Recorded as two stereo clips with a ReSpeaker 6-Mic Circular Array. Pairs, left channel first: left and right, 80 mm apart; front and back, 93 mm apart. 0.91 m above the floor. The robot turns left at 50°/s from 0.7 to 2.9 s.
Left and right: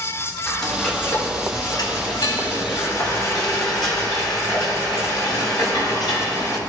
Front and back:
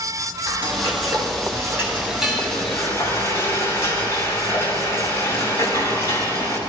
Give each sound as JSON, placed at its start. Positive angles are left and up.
{"t": 0.5, "sound": "frying", "azimuth_deg": 170, "distance_m": 4.0}